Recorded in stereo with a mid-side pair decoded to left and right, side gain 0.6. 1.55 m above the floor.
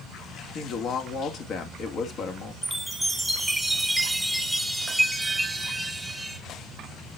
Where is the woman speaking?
55° left, 2 m.